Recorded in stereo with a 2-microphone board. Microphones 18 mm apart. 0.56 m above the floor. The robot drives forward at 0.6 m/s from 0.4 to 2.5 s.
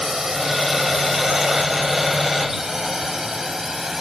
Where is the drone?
25° right (ahead or behind); by 4.0 s 20° right (ahead or behind).